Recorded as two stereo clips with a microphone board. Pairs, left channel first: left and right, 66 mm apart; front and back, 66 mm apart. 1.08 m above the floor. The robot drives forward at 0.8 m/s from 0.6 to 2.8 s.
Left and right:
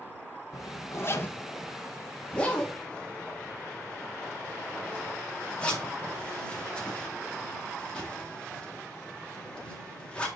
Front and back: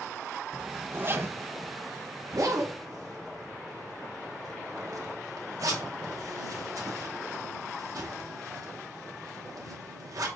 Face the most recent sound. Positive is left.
turn(degrees=160)